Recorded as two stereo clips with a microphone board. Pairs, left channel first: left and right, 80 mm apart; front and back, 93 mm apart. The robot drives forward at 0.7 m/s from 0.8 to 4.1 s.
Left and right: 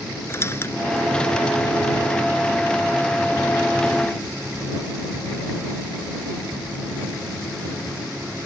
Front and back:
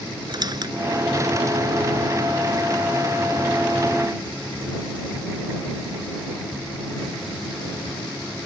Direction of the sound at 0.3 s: 145° left.